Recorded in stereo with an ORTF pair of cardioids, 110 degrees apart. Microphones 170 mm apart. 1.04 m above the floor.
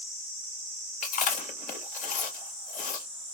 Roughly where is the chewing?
Ahead left.